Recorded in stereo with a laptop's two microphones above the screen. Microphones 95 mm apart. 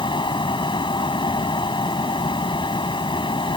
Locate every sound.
0.0 s a fan: 55° left (ahead or behind)